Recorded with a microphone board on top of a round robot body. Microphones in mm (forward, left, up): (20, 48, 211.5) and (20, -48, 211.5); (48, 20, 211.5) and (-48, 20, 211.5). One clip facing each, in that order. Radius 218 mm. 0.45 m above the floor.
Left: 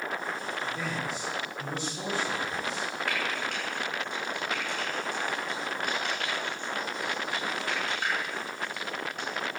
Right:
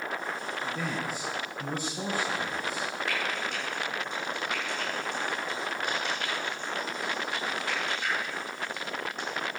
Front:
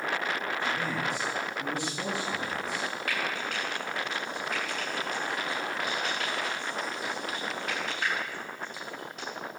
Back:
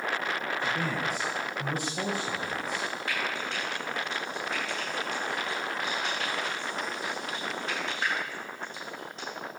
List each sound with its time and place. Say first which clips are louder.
0.6 s a man speaking: right 2 dB, back 1 dB; 175° right, 4.5 m
3.1 s frying: left 1 dB, even; 120° left, 9.5 m